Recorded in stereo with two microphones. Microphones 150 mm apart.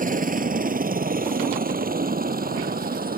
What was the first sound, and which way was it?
A helicopter, 65° right (ahead or behind).